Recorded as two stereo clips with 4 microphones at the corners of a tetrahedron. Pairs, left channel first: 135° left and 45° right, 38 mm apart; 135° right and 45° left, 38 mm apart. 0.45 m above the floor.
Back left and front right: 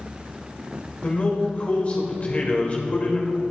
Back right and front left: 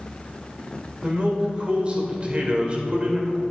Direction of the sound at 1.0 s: 95° left.